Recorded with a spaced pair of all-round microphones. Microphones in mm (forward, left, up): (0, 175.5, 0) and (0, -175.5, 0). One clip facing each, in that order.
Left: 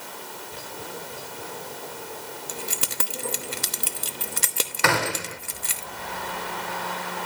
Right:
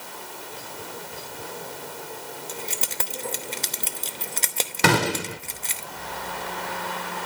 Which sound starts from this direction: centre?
Keys jangling, at 2.5 s.